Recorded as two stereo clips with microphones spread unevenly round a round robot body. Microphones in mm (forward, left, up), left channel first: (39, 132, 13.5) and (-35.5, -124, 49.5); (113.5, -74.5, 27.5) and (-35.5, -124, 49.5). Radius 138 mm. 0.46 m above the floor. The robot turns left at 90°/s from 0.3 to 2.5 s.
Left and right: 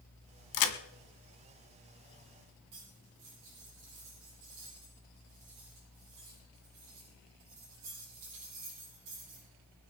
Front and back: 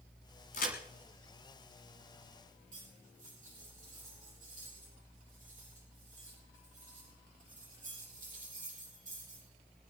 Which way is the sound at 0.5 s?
80° left.